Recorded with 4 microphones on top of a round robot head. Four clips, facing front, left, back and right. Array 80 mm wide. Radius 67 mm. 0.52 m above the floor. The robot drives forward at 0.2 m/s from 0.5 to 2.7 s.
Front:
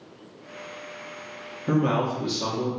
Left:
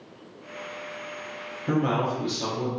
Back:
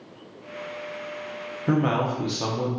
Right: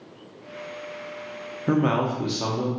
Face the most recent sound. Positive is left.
turn(degrees=-140)